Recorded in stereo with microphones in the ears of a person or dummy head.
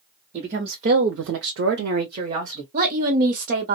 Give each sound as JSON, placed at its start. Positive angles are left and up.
{"t": 0.3, "sound": "a woman speaking", "side_deg": -40, "distance_m": 0.9}
{"t": 2.7, "sound": "a woman speaking", "side_deg": -50, "distance_m": 0.9}